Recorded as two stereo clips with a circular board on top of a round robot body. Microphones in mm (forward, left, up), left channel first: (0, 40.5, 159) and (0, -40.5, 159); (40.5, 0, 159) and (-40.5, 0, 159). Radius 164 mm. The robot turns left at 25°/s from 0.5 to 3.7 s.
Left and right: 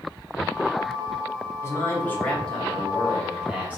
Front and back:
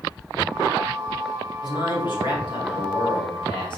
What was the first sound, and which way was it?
A man speaking, 35° left.